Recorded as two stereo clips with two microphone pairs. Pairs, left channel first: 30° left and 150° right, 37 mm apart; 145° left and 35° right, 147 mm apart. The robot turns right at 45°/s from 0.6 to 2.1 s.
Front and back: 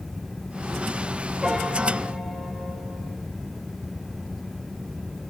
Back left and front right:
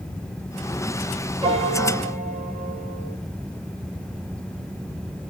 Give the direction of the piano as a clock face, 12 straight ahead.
3 o'clock.